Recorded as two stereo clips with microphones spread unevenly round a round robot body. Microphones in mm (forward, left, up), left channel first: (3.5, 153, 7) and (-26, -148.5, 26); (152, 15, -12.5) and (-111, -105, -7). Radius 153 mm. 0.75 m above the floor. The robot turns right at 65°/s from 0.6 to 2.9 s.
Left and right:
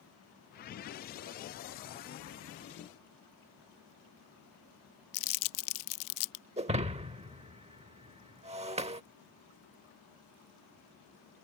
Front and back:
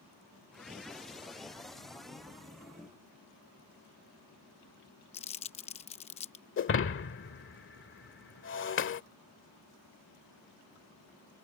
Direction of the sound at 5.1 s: 95° left.